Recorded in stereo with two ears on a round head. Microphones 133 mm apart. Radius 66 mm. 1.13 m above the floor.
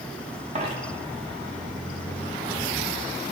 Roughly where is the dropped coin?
Right.